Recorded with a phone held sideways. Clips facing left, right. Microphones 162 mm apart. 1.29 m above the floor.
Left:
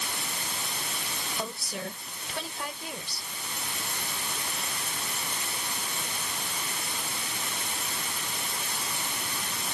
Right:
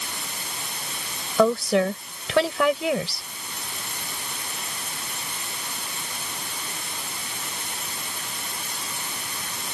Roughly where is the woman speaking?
Right.